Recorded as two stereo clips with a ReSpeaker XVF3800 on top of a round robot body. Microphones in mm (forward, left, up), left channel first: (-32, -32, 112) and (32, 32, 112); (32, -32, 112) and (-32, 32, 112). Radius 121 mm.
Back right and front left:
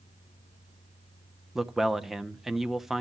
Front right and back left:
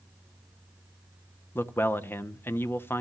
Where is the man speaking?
35° right, 1.1 m.